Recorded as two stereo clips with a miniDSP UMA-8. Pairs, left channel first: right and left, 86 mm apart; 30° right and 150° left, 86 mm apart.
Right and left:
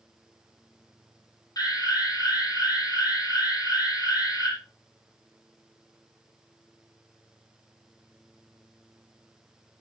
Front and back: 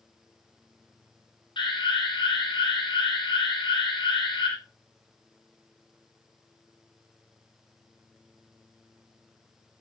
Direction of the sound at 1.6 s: 50° right.